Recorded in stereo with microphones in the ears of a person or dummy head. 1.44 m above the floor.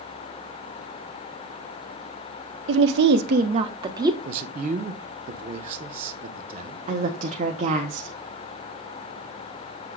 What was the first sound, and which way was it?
A woman speaking, 75° right (ahead or behind).